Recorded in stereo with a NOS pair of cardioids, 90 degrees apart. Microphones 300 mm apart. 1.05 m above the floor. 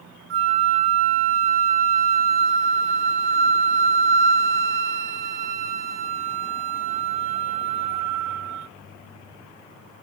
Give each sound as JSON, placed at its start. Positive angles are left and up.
{"t": 0.3, "sound": "a flute", "azimuth_deg": -45, "distance_m": 0.6}